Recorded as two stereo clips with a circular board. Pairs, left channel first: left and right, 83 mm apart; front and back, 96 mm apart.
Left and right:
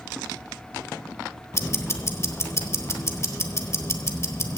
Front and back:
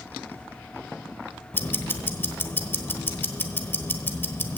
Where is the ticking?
55° left, 1.1 m.